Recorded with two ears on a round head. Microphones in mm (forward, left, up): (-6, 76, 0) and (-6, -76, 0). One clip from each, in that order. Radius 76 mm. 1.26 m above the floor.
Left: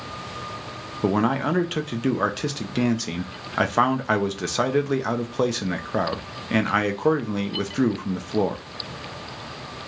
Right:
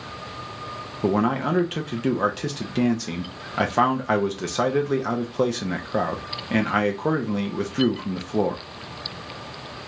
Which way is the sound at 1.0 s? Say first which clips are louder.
Even; 15° left (ahead or behind).